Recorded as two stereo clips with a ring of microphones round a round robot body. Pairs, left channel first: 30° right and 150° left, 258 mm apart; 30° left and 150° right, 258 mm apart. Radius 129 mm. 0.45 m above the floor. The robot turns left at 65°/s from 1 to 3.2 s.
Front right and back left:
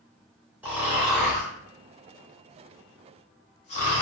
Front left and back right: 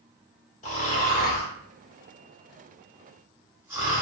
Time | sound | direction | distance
0.6 | snoring | 70° left | 1.2 m